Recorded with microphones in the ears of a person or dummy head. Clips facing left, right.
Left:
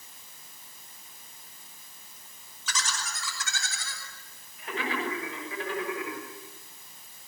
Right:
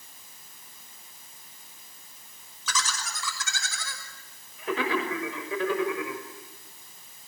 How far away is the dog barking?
No dog barking in this recording.